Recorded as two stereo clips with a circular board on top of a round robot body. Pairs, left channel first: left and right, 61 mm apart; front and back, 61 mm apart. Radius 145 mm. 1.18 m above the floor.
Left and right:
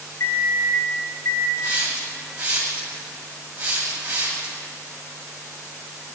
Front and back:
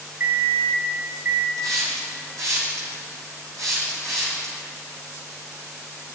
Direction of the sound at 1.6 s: 155° right.